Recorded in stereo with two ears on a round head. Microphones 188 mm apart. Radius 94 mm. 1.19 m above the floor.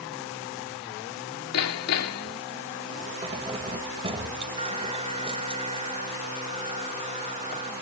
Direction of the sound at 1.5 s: 85° left.